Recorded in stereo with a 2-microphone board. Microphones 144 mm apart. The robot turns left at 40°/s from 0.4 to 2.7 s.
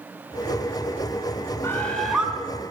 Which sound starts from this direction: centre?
A bird, at 1.6 s.